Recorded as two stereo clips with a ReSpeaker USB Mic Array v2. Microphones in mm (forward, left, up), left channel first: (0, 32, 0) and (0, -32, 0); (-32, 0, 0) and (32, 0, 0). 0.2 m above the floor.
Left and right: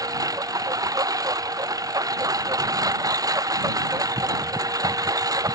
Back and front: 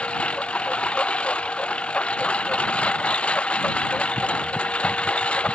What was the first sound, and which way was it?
A lawn mower, 110° right.